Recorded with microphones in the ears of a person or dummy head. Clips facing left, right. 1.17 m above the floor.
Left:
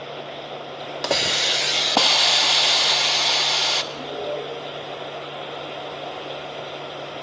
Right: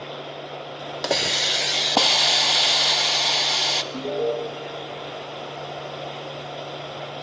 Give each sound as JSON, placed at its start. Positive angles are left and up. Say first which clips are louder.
{"t": 1.0, "sound": "a hiss", "louder": "left 1 dB", "side_deg": -5, "distance_m": 0.5}
{"t": 3.9, "sound": "an alarm", "louder": "right 8 dB", "side_deg": -85, "distance_m": 3.0}